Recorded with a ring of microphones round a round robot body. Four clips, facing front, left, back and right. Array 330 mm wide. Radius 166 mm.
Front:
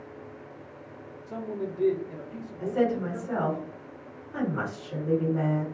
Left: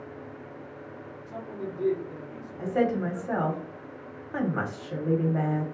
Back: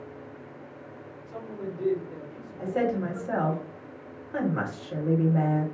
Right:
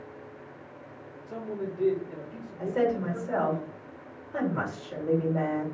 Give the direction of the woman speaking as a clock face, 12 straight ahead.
8 o'clock.